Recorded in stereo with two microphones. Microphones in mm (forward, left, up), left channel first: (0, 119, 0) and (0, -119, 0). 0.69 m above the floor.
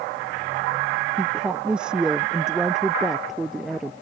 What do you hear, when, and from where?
1.2 s a woman speaking: 5° right (ahead or behind); by 3.9 s centre (ahead or behind)